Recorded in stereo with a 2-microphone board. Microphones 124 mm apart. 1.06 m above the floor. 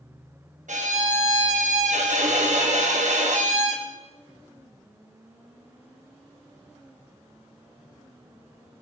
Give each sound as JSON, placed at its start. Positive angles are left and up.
{"t": 0.7, "sound": "a violin", "side_deg": -80, "distance_m": 1.2}